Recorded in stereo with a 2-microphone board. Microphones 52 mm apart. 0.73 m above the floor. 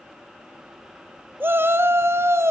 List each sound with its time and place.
1.4 s a shout: 40° right (ahead or behind), 1.1 m; by 2.5 s 50° right (ahead or behind), 1.4 m